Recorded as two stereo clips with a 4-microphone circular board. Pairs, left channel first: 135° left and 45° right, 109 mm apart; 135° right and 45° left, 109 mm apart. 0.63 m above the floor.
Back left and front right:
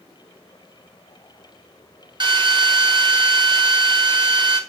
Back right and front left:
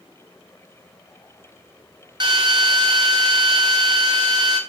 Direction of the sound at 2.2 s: Straight ahead.